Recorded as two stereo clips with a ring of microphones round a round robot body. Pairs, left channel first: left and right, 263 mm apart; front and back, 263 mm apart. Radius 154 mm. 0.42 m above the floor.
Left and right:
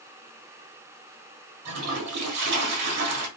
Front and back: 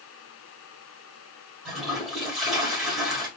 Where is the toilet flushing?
90° right, 1.2 m.